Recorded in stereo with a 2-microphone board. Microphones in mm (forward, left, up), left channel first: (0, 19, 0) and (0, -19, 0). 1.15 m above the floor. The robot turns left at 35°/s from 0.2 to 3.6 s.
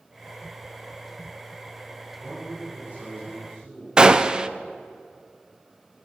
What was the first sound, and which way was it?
A man speaking, 15° right.